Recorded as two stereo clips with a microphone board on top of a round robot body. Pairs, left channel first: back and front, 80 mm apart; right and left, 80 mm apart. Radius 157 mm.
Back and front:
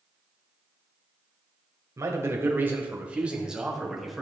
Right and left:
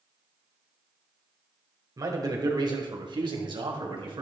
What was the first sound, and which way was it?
A man speaking, 50° left.